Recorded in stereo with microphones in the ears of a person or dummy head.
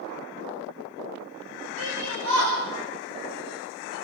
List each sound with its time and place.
1.8 s a shout: 80° right, 4 m; by 3.9 s 55° right (ahead or behind), 4.5 m